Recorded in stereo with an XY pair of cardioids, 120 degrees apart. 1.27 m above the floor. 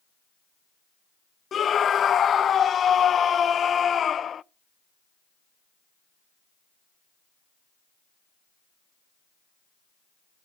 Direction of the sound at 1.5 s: 40° left.